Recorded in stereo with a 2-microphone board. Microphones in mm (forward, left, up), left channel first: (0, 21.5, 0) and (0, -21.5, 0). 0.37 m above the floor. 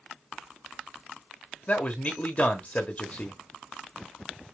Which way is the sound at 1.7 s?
35° left (ahead or behind).